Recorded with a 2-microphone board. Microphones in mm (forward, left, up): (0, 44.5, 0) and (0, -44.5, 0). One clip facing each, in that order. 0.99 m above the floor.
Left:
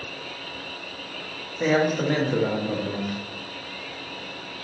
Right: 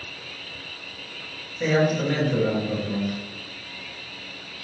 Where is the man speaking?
30° left (ahead or behind), 0.9 m.